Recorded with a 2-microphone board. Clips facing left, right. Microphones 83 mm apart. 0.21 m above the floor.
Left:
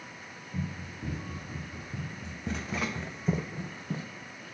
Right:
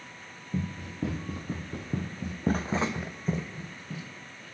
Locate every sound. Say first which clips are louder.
0.5 s running footsteps: right 4 dB; 85° right, 2.5 m; by 4.1 s 35° left (ahead or behind), 1.3 m